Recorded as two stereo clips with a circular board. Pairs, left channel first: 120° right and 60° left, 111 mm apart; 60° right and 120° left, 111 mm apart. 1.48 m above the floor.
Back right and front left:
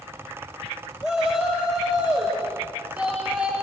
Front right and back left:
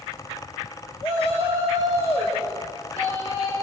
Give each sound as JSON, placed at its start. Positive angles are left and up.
{"t": 1.0, "sound": "a shout", "azimuth_deg": -25, "distance_m": 6.0}